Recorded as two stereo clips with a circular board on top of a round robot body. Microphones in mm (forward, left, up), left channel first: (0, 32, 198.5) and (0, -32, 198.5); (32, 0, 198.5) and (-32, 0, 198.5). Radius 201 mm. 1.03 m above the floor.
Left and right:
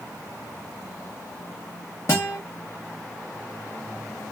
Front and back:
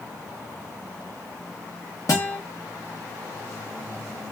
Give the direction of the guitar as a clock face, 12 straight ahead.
11 o'clock.